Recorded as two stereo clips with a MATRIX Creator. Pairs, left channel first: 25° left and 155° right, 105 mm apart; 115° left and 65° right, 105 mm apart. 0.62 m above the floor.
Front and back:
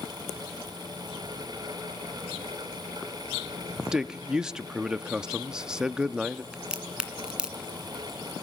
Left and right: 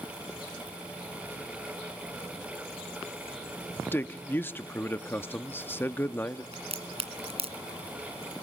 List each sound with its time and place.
3.9 s a man speaking: 130° left, 0.5 m
6.5 s a crack: 75° right, 2 m